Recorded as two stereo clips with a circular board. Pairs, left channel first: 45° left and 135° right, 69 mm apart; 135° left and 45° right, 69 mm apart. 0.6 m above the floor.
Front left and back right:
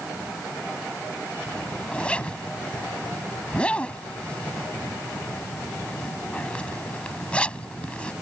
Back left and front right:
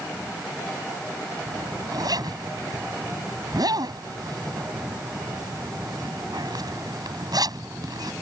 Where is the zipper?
30° right.